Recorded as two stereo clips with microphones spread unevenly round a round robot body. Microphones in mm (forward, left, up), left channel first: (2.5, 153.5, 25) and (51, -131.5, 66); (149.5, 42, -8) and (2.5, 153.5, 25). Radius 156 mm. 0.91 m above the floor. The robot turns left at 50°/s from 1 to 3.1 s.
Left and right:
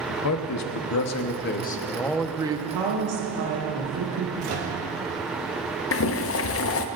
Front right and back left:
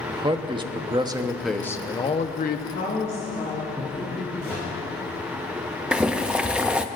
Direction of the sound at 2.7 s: 85° right.